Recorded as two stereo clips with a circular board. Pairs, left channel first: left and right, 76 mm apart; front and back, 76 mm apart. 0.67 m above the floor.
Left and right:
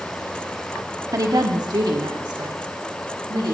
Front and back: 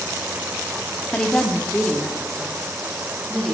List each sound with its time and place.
1.1 s a woman speaking: 70° right, 1.1 m; by 3.5 s 85° right, 3.5 m